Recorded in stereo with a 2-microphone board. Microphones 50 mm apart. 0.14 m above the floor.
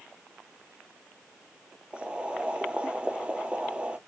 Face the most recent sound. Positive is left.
turn(degrees=-20)  # may be behind; listen again after turning